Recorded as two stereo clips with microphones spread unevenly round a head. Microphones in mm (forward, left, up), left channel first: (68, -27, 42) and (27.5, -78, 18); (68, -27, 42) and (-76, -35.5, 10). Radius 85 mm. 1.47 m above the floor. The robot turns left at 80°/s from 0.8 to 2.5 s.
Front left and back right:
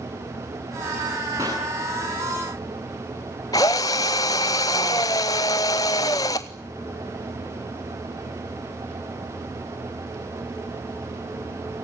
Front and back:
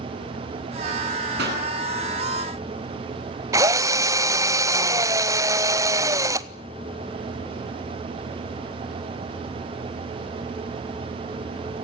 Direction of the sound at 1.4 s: 170° left.